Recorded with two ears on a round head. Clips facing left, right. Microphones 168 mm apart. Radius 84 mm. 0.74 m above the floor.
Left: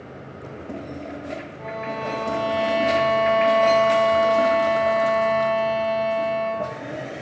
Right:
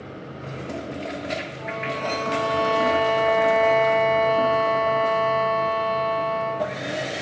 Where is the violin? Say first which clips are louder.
Even; 10° left (ahead or behind), 2.5 m.